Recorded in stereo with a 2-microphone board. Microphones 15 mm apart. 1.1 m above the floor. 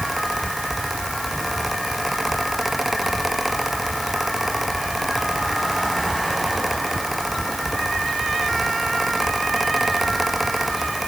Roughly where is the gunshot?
I don't hear a gunshot.